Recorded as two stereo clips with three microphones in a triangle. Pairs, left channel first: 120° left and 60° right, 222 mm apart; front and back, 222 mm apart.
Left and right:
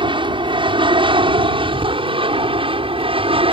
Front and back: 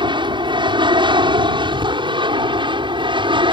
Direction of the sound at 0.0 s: 120° right.